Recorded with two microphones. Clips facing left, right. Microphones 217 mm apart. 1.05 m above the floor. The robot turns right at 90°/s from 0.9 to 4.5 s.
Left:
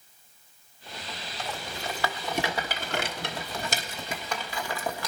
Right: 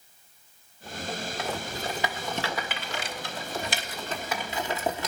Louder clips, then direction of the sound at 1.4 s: Even; 70° right (ahead or behind).